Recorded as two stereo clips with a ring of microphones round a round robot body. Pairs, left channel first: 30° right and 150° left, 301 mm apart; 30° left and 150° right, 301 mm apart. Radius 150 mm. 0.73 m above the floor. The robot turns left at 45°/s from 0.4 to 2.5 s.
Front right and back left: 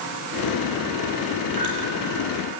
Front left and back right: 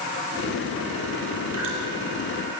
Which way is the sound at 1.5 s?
165° left.